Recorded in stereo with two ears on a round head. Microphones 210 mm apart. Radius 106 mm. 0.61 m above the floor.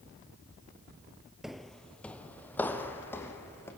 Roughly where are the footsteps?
Centre.